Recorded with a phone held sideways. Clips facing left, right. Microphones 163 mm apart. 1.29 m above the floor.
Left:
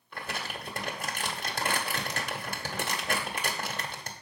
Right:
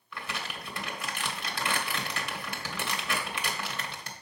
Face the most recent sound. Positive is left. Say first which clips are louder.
# left 1 dB
turn(degrees=45)  # may be behind; listen again after turning